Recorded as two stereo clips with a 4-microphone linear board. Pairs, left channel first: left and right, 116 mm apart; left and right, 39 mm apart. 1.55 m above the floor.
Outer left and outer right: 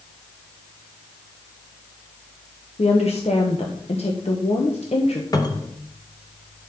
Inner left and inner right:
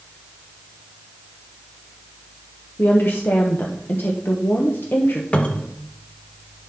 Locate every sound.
2.8 s a woman speaking: 65° left (ahead or behind), 1.0 m
5.3 s a cupboard door: 35° left (ahead or behind), 0.9 m